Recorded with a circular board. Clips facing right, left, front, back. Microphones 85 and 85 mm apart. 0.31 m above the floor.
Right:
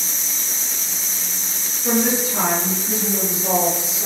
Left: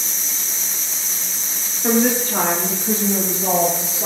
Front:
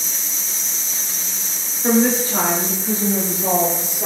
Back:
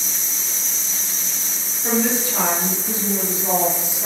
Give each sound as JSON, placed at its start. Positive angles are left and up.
{"t": 1.8, "sound": "a woman speaking", "azimuth_deg": 50, "distance_m": 6.5}